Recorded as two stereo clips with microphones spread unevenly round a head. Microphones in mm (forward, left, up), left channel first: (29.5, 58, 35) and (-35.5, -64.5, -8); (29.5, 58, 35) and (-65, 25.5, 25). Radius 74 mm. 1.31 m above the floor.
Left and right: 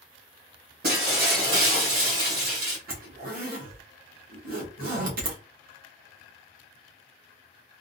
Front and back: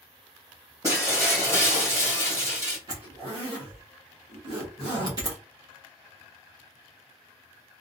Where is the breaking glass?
90° right, 1.9 m.